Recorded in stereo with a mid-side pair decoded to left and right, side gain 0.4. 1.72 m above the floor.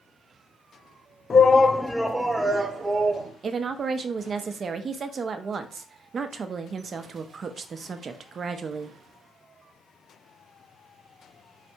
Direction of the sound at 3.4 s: 50° right.